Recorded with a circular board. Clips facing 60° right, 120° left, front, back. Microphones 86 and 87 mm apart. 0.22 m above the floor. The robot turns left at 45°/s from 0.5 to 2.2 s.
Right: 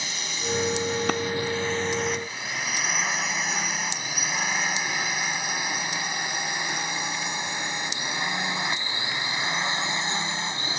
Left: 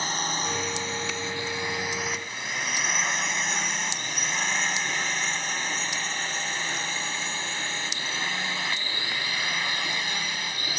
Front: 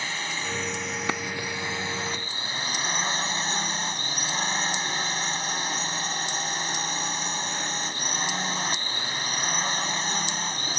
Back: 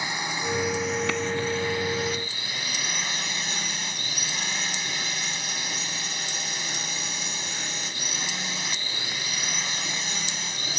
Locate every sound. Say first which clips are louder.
0.0 s a drone: left 5 dB, back 2 dB; 115° left; by 10.8 s 10° right
1.1 s a clap: right 8 dB, back 1 dB; 60° right; by 1.2 s 65° right